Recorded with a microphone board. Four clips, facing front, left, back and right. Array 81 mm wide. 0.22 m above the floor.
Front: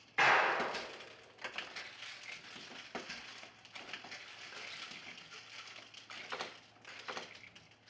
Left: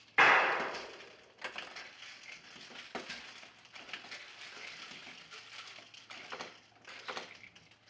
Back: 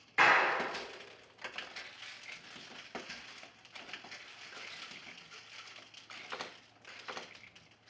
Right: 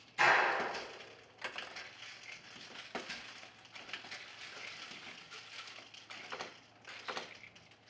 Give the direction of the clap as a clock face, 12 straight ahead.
9 o'clock.